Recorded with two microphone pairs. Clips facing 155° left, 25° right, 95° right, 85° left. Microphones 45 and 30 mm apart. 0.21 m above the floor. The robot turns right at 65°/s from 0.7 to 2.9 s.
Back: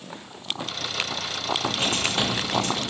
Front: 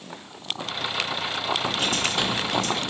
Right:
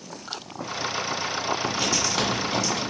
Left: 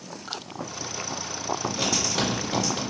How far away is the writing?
About 2 m.